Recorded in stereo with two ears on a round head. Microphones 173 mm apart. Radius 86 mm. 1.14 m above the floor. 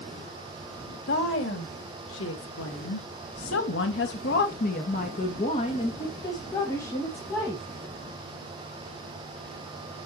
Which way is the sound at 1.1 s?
65° left (ahead or behind).